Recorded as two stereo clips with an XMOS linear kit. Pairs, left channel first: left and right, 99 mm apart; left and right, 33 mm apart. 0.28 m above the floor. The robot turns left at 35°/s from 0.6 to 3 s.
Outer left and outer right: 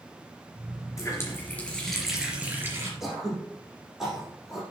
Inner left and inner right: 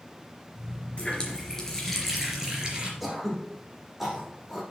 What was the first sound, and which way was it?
A running tap, 35° left.